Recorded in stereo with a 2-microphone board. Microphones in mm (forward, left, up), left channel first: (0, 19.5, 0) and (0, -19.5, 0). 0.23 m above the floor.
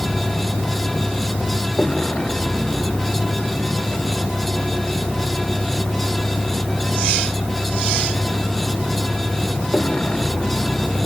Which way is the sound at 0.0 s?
35° left (ahead or behind).